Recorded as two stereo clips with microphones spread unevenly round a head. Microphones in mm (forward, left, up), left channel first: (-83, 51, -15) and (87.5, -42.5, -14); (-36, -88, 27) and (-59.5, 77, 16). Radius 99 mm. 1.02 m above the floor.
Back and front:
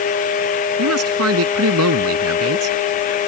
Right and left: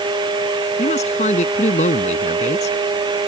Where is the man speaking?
25° right.